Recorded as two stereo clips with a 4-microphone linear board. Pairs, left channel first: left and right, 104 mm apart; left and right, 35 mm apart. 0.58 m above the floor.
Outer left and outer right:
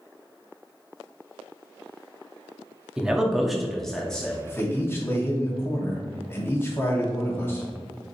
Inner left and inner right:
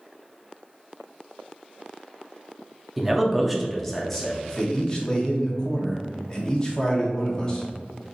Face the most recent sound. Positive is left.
turn(degrees=20)  # may be behind; listen again after turning